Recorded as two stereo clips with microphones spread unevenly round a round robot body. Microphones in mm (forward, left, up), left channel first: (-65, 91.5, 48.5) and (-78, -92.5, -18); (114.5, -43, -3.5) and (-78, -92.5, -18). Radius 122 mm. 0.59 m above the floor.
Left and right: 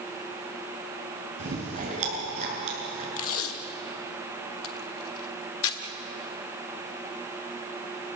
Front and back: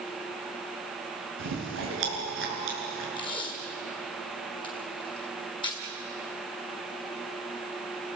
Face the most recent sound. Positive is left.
turn(degrees=85)